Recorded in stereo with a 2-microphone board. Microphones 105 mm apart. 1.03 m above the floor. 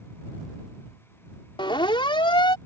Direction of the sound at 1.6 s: 55° left (ahead or behind).